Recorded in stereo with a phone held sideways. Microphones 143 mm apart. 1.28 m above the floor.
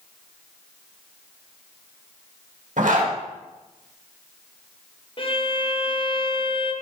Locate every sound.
2.8 s a zipper: 75° right (ahead or behind), 1.6 m
5.2 s a violin: 40° left (ahead or behind), 0.7 m